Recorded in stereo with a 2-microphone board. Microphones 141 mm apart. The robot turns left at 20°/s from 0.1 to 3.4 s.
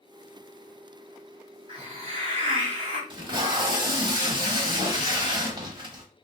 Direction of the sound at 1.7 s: 45° right (ahead or behind).